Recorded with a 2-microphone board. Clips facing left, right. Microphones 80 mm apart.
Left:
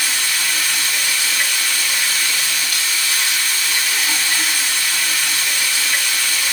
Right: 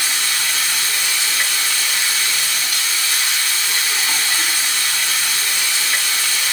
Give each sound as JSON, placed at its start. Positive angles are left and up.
{"t": 0.0, "sound": "running water", "side_deg": -20, "distance_m": 2.5}